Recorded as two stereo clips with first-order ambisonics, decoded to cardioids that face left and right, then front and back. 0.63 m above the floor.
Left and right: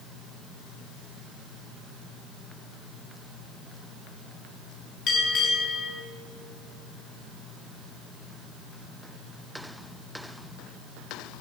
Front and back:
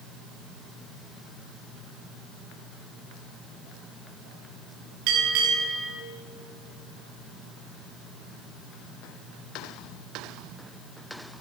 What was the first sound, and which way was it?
A bell, 145° left.